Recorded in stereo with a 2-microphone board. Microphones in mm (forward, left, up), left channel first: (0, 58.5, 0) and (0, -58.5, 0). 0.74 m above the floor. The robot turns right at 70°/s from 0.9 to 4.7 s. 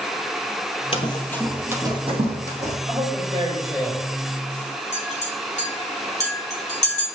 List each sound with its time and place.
0.9 s running footsteps: 50° left (ahead or behind), 1.1 m; by 2.8 s 65° right (ahead or behind), 2.5 m
2.9 s a man speaking: 80° right, 4 m; by 4.0 s straight ahead, 4 m
4.9 s a clink: 75° left (ahead or behind), 3.5 m